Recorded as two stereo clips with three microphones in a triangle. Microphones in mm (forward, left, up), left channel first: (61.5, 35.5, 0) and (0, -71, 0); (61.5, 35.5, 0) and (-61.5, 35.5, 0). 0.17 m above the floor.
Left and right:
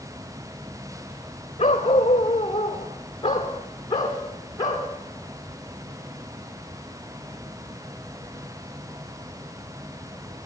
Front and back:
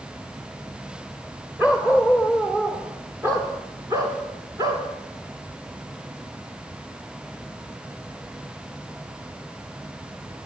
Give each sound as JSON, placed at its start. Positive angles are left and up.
{"t": 1.6, "sound": "a dog barking", "azimuth_deg": 105, "distance_m": 5.0}